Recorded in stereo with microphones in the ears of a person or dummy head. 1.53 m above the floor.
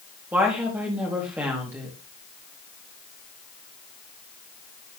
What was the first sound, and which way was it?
A woman speaking, 10° right (ahead or behind).